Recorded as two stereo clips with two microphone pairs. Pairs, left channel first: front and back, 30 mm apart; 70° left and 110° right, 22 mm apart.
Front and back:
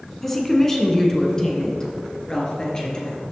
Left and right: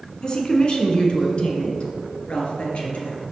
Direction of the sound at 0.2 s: 80° left.